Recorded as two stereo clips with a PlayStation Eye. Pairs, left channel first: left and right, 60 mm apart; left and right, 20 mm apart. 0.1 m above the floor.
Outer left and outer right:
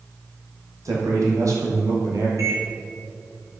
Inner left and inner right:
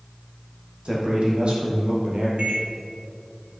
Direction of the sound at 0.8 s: 70° right (ahead or behind).